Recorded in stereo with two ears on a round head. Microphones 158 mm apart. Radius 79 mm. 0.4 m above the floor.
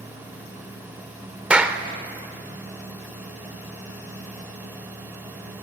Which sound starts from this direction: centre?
A clap, at 1.5 s.